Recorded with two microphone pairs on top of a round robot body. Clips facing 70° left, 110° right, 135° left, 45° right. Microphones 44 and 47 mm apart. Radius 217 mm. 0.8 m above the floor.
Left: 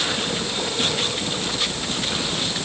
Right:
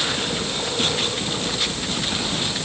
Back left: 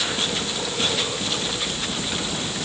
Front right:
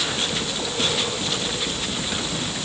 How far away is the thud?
No thud in this recording.